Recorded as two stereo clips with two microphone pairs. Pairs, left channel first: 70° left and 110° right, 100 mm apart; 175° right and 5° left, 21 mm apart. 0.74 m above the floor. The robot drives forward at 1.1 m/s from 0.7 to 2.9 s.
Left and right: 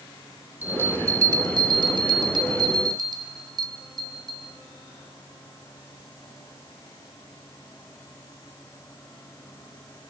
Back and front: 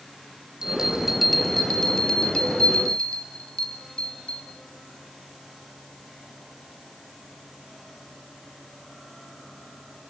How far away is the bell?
About 1.3 m.